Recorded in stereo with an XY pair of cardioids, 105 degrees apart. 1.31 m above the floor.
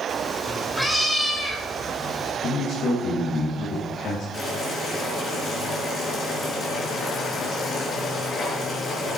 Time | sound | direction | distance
0.1 | a cat meowing | 5° left | 1.9 m
2.4 | a man speaking | 65° left | 2 m
4.3 | boiling | 45° left | 4.5 m